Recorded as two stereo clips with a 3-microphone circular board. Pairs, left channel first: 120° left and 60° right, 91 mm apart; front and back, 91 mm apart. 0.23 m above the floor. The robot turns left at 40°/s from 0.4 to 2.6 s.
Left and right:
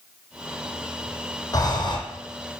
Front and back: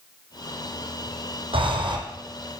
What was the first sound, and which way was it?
Breathing, 170° left.